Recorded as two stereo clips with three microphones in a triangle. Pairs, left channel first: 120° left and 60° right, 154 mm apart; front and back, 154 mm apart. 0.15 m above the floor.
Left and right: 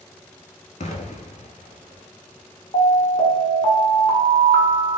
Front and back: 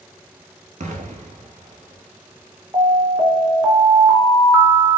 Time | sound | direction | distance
0.8 | an explosion | 155° left | 0.5 m
2.7 | an alarm | 130° left | 1.0 m